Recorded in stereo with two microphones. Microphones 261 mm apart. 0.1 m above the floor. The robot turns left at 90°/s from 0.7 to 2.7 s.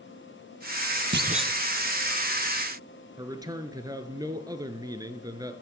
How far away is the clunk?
About 0.8 m.